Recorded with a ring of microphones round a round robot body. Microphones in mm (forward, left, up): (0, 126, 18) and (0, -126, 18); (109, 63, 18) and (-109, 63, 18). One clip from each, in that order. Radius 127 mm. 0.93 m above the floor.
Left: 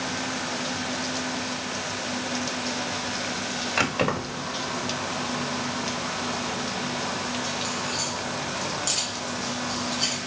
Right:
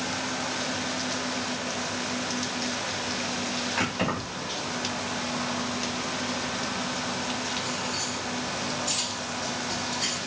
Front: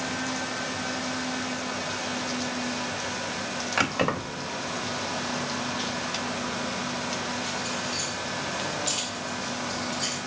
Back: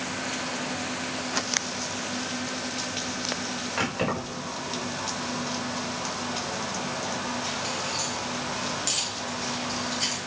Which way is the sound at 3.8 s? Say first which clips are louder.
Left 7 dB, front 3 dB; 40° left.